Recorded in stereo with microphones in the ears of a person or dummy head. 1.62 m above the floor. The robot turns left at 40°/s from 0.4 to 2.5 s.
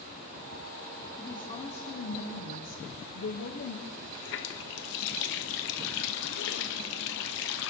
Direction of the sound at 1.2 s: 165° left.